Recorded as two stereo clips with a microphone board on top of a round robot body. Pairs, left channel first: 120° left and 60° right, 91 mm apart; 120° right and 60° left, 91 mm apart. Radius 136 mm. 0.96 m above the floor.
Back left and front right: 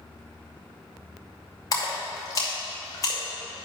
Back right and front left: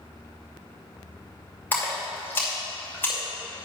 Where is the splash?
170° left, 2.5 m.